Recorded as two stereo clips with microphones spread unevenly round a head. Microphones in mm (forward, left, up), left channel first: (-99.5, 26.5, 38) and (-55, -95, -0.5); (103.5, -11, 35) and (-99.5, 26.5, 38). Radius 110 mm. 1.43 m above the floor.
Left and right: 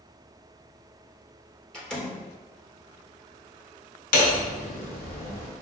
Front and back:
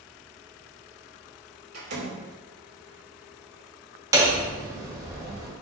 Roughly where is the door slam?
Behind.